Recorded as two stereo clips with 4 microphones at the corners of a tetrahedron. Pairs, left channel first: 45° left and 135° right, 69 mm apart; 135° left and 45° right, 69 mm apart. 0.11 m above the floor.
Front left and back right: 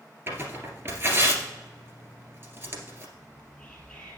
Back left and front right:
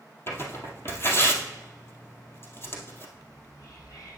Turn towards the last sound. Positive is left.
turn(degrees=130)